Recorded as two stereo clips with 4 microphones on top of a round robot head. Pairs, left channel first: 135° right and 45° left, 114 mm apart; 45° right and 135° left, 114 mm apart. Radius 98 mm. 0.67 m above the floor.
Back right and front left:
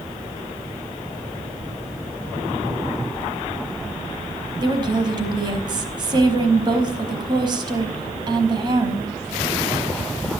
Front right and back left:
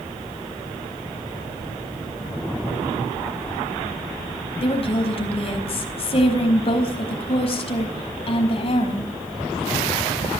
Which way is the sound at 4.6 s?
5° right.